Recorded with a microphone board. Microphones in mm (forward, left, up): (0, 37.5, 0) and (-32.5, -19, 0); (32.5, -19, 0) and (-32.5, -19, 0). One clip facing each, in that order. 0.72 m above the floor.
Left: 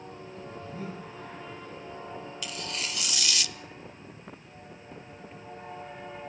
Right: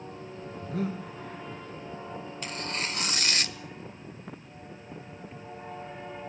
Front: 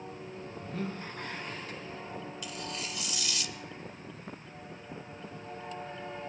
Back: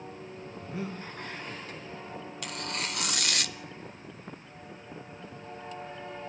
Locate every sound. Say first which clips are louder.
0.6 s breathing: right 9 dB, even; 105° right, 4 m
2.4 s tearing paper: right 4 dB, back 3 dB; 165° right, 0.7 m